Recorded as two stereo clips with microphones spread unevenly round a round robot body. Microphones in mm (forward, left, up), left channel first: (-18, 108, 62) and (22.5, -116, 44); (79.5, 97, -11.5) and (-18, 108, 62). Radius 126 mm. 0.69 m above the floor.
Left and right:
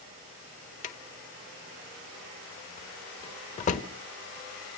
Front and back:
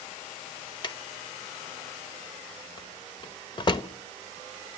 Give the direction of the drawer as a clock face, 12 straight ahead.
11 o'clock.